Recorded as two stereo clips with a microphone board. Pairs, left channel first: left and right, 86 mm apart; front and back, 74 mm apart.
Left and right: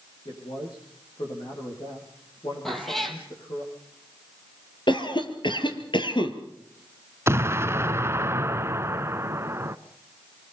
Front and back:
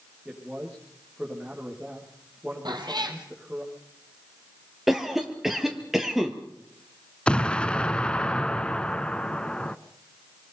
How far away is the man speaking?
About 9 m.